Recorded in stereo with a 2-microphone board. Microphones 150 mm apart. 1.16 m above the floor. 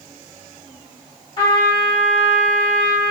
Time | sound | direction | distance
1.4 | a trumpet | 40° left (ahead or behind) | 1.4 m